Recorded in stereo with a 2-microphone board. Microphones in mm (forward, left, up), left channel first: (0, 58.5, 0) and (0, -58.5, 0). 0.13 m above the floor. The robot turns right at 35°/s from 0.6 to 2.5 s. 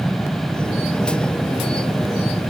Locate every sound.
Only background noise.